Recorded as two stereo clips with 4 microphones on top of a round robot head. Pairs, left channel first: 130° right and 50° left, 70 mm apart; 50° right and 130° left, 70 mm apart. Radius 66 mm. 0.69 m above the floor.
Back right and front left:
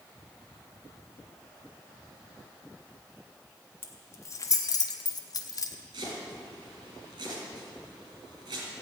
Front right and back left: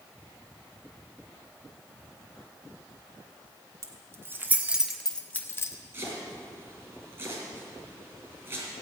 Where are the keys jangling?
175° left, 1.7 m; by 5.8 s 95° right, 1.3 m.